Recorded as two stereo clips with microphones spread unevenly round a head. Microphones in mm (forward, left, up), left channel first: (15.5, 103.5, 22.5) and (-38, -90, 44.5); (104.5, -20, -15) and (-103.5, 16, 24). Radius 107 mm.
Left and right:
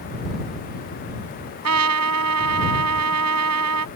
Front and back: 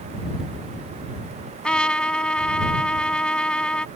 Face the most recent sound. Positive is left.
turn(degrees=-100)